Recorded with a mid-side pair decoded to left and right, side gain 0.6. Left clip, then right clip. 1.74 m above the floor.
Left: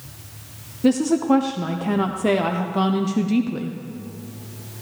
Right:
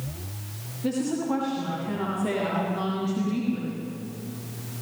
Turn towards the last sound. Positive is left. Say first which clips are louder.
# left 9 dB
turn(degrees=50)